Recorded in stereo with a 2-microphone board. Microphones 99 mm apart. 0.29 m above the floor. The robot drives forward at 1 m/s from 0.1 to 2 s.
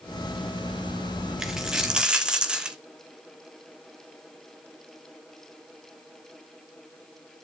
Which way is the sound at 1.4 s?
5° right (ahead or behind).